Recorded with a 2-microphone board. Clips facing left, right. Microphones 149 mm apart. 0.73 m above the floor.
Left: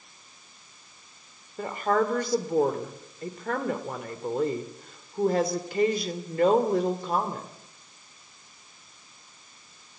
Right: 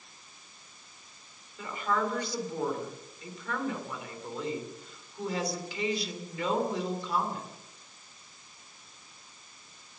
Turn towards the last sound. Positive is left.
turn(degrees=50)  # may be behind; listen again after turning